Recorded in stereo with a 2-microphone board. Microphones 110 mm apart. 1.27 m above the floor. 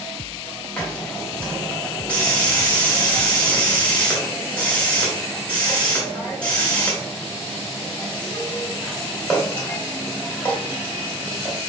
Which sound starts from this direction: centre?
A hiss, at 0.8 s.